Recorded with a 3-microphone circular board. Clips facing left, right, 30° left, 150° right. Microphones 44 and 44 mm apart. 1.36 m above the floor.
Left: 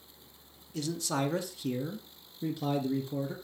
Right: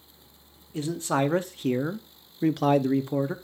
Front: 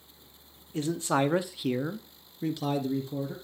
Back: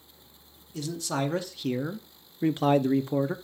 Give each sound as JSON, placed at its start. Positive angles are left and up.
{"t": 0.7, "sound": "a man speaking", "azimuth_deg": -30, "distance_m": 1.0}